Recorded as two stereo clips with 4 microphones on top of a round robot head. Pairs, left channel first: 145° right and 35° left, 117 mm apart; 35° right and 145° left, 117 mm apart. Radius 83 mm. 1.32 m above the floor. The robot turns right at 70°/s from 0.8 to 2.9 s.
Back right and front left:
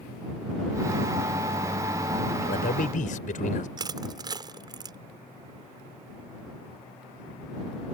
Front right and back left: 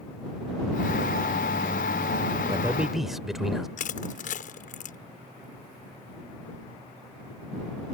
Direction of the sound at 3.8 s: 20° right.